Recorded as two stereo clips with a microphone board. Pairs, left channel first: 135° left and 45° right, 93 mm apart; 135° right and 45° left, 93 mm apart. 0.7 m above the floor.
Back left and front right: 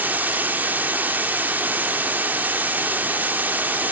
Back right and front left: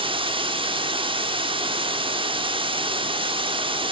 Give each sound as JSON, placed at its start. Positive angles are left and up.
{"t": 0.0, "sound": "running water", "azimuth_deg": 25, "distance_m": 1.0}